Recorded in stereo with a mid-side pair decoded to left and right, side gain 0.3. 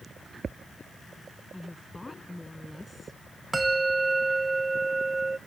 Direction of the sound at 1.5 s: 20° left.